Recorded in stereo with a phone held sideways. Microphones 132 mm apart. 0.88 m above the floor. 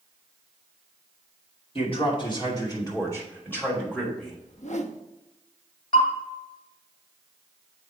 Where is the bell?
55° left (ahead or behind), 2.5 m.